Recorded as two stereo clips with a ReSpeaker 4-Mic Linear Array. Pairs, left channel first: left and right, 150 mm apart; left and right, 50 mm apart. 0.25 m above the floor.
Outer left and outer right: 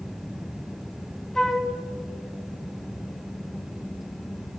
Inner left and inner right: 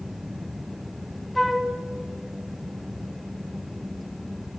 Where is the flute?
5° left (ahead or behind), 1.7 m.